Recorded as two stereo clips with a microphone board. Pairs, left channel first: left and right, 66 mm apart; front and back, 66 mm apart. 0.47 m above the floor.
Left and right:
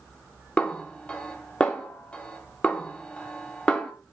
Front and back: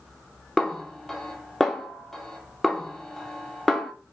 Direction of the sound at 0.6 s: 75° left.